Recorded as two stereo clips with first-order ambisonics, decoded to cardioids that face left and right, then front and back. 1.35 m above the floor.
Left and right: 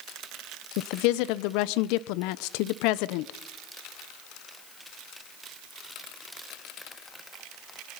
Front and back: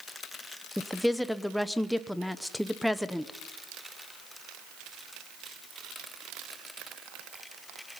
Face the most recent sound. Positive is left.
turn(degrees=90)